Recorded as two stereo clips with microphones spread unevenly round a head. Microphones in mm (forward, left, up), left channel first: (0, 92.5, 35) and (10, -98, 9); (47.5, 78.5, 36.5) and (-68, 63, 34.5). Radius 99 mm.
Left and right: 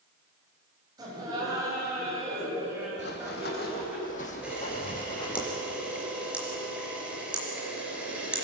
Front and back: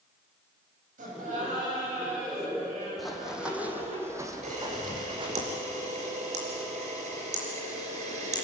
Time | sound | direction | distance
1.0 | laughter | 160° right | 9.5 m
3.0 | running footsteps | 95° left | 3.5 m
4.4 | a camera shutter | 175° right | 4 m